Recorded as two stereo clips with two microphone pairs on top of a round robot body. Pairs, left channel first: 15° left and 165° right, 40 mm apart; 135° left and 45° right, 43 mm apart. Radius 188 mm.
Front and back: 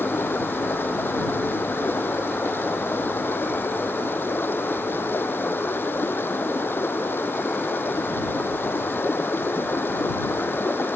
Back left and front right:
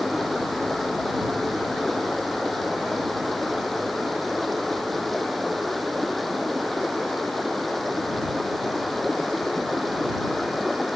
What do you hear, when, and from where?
0.0 s running water: 45° left